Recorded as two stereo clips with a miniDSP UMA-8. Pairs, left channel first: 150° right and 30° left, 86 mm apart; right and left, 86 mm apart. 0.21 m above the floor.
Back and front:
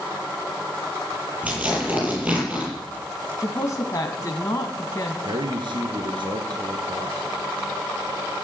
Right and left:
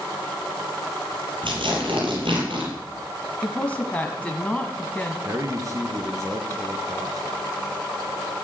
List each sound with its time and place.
1.4 s tearing paper: 105° left, 7 m
3.4 s a woman speaking: 155° right, 1.6 m
5.2 s a man speaking: 45° left, 2.5 m